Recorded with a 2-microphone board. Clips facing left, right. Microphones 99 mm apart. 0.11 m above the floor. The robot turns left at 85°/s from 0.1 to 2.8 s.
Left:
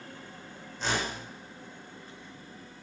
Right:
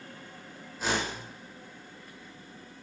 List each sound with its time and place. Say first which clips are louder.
0.8 s a whoosh: right 1 dB; 5° right, 0.9 m; by 1.2 s 40° right, 0.9 m